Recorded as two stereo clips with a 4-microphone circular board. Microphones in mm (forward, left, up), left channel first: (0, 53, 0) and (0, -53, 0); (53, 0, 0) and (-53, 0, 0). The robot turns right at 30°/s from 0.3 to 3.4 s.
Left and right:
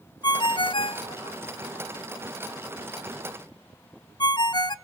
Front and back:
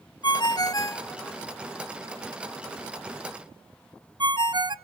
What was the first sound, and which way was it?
A ringtone, 45° left.